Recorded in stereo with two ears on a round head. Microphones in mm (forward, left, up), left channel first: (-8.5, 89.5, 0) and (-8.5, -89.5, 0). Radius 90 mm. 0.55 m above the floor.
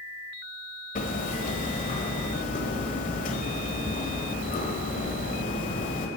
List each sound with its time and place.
0.9 s hammering: 40° left (ahead or behind), 1.4 m